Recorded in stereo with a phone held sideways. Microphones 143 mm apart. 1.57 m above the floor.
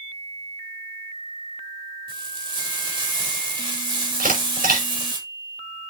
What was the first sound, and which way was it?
Frying, 35° right (ahead or behind).